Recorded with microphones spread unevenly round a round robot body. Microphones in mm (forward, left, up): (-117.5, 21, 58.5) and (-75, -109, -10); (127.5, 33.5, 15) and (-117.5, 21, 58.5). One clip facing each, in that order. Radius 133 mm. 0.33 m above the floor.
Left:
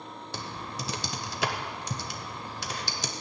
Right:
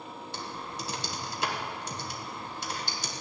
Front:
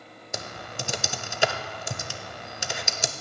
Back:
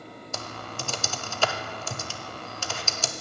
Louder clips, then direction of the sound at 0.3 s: Left 2 dB, front 2 dB; 70° left.